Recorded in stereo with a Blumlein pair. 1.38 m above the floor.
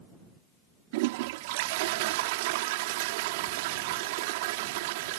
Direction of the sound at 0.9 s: 50° right.